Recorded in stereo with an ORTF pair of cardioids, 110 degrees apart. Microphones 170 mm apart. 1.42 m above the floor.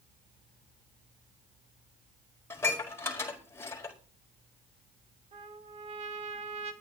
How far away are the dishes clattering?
About 4.5 m.